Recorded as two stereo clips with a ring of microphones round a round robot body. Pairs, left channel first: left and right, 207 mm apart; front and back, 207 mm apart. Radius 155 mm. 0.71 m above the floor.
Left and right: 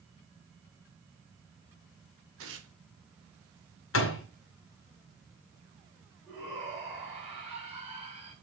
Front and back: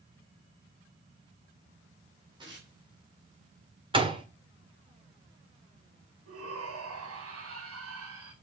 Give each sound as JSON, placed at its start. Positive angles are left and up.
{"t": 2.4, "sound": "tearing paper", "azimuth_deg": -110, "distance_m": 3.0}
{"t": 3.9, "sound": "a door slam", "azimuth_deg": 115, "distance_m": 1.9}
{"t": 6.3, "sound": "a shout", "azimuth_deg": -170, "distance_m": 4.5}